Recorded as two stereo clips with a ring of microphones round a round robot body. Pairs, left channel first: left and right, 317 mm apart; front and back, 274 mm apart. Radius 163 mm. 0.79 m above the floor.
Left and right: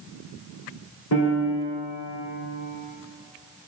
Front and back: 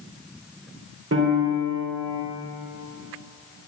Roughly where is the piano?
Behind left.